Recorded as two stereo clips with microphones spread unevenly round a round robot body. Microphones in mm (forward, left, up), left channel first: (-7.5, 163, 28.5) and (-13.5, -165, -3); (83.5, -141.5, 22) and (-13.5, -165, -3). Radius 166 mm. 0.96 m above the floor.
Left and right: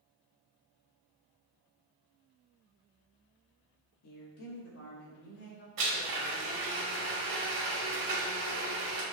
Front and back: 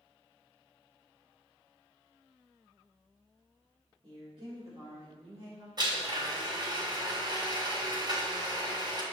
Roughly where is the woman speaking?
Behind left.